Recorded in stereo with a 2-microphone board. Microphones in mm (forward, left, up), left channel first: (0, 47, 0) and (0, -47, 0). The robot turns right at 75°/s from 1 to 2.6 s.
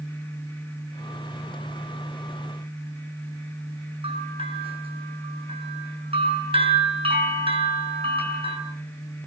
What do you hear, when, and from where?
4.0 s a bell: 65° right (ahead or behind), 6.5 m